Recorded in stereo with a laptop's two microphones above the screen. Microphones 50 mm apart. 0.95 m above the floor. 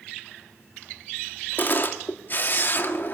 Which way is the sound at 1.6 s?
45° left (ahead or behind).